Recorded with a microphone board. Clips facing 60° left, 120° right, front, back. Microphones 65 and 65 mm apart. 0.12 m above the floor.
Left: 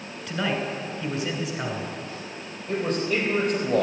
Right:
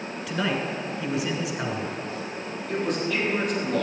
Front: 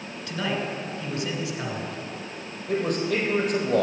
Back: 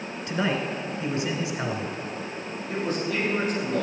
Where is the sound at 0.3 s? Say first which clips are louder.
Even, back 2 dB; 160° left, 1.5 m.